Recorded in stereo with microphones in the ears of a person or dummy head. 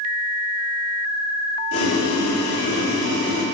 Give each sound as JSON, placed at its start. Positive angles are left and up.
{"t": 1.7, "sound": "boiling", "side_deg": 85, "distance_m": 2.0}